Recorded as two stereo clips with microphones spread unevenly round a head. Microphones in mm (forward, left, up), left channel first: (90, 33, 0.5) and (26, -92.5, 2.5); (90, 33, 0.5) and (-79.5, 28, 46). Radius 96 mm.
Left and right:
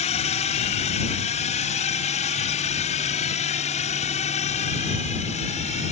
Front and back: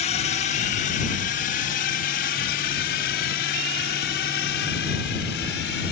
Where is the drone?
35° left; by 5.9 s 25° left.